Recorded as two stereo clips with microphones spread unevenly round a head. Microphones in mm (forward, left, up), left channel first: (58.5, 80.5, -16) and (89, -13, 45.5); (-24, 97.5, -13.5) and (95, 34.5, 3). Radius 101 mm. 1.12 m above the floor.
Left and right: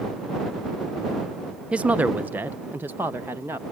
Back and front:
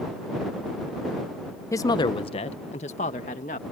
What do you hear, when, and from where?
1.7 s a woman speaking: 140° left; by 3.6 s 160° right